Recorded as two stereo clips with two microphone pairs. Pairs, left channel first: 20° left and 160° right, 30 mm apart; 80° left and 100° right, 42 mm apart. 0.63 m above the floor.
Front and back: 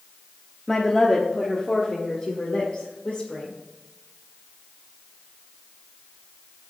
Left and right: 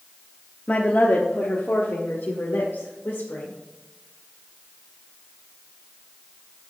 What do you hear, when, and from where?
0.7 s a woman speaking: 95° left, 1.1 m; by 3.5 s 60° left, 2 m